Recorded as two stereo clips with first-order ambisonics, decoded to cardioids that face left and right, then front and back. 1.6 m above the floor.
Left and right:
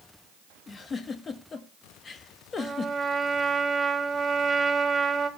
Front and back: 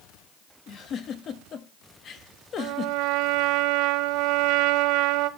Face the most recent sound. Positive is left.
turn(degrees=-165)